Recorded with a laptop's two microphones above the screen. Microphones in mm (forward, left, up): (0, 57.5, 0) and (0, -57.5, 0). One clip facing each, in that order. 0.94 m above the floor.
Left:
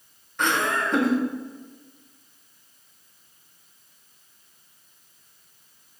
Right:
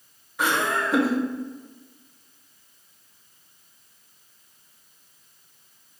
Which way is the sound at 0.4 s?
5° right (ahead or behind).